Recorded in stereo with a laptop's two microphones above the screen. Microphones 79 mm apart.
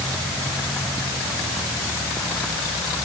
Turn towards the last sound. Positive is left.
No sound to turn to.